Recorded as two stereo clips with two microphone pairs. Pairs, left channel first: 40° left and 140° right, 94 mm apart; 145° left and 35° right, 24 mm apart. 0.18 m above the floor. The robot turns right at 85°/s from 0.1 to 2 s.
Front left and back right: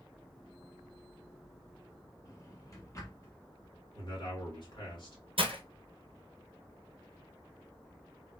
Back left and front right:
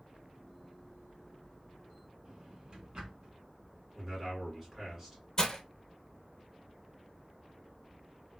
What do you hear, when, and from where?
2.2 s a drawer: straight ahead, 1.2 m
4.0 s a man speaking: 40° left, 2 m
5.4 s breaking glass: 155° right, 0.7 m